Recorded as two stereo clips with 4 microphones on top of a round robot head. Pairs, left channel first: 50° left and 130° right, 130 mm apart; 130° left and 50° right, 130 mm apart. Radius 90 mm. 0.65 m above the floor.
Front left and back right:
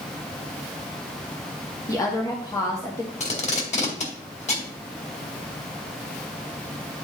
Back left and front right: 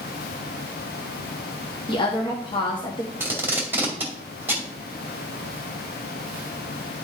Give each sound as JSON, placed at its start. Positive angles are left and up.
{"t": 1.9, "sound": "a woman speaking", "azimuth_deg": 100, "distance_m": 1.2}
{"t": 3.2, "sound": "tape being pulled", "azimuth_deg": 25, "distance_m": 2.0}